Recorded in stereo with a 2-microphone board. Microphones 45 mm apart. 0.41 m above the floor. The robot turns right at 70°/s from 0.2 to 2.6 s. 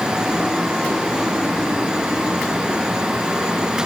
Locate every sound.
Only background noise.